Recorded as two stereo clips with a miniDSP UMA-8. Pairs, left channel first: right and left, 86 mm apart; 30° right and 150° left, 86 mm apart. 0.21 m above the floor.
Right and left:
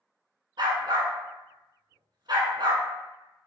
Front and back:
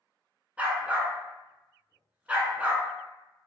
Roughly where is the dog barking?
Left.